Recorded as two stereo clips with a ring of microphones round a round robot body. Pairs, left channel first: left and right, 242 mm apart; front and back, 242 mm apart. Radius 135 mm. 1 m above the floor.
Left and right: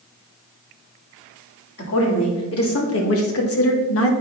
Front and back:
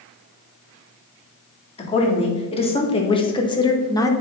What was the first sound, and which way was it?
A woman speaking, 65° left.